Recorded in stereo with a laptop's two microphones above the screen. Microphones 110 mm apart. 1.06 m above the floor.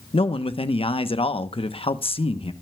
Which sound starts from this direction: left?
A man speaking, at 0.1 s.